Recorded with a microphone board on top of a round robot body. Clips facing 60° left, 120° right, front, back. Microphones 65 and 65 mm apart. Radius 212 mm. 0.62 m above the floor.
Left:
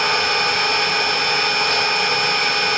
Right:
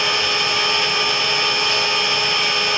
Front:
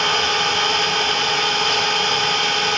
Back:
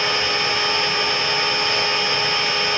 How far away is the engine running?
About 5 m.